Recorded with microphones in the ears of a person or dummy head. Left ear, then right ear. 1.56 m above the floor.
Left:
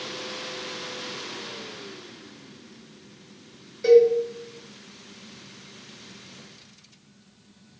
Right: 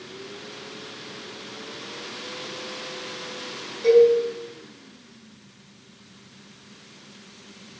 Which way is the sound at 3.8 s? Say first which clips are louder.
Even; 40° left (ahead or behind).